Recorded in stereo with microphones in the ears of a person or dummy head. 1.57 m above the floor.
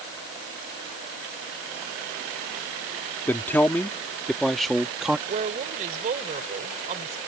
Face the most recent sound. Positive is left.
turn(degrees=-40)  # may be behind; listen again after turning